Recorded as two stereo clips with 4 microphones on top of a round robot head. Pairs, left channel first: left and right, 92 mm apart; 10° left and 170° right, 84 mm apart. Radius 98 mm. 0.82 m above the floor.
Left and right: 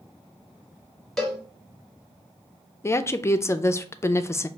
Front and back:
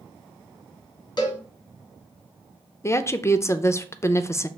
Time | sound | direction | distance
1.2 | a cowbell | 5° left | 1.7 m
2.8 | a woman speaking | 45° left | 0.5 m